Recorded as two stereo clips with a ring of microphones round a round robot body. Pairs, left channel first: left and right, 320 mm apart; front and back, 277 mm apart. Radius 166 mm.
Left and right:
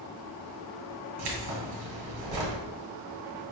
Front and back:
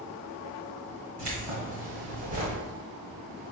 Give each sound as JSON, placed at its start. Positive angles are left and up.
{"t": 1.2, "sound": "keys jangling", "azimuth_deg": -120, "distance_m": 1.5}